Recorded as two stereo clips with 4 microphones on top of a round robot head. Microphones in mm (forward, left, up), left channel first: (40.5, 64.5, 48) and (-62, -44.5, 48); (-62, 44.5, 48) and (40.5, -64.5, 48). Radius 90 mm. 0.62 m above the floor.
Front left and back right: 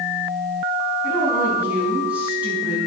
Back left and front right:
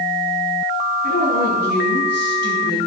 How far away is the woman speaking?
About 5 m.